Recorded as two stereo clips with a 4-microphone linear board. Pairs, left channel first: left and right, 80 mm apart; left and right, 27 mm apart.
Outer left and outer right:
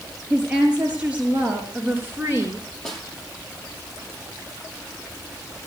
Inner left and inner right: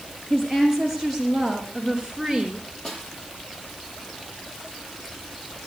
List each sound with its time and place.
0.3 s a woman speaking: 10° right (ahead or behind), 4.5 m; by 2.8 s 35° right (ahead or behind), 3 m
2.9 s a snare drum: 5° left (ahead or behind), 5 m